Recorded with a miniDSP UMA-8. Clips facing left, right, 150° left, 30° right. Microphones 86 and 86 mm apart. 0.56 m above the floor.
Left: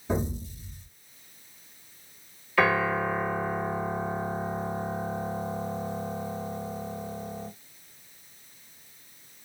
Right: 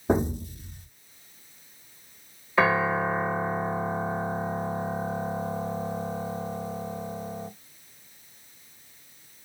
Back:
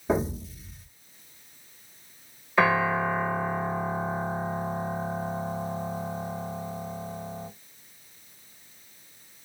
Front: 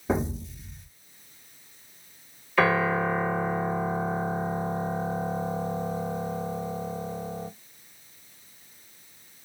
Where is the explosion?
120° right, 1.1 m.